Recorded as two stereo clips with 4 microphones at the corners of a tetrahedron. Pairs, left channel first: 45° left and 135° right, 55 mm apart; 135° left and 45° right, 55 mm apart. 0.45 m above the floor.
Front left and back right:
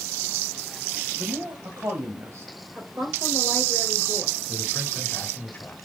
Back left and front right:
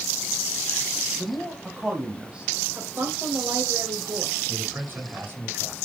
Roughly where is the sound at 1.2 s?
Behind right.